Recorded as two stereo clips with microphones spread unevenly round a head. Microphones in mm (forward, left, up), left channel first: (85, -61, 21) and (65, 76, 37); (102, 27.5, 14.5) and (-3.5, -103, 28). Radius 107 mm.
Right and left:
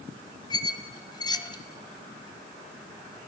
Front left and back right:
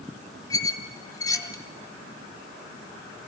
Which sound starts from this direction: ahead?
A squeak, at 0.5 s.